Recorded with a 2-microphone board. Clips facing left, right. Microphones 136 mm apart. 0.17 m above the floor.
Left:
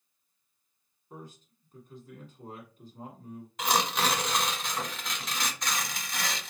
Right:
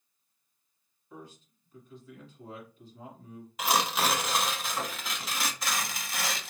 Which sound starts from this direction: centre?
Tearing paper, at 3.6 s.